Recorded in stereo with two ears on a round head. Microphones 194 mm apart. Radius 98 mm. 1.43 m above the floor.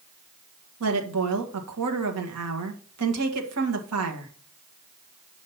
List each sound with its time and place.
0.8 s a woman speaking: 85° right, 1.7 m